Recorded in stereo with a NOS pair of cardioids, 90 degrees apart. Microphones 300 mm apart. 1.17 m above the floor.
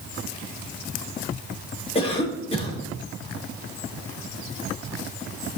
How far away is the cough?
About 3.5 m.